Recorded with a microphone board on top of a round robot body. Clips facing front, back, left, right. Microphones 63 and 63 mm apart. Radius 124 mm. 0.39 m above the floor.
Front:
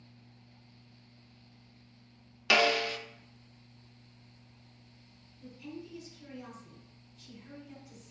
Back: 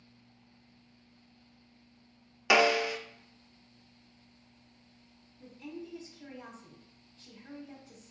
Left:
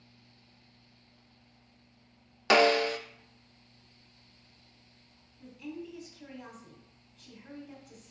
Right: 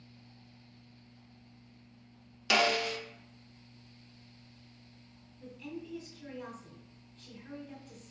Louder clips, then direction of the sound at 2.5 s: Back 2 dB, left 6 dB; 115° left.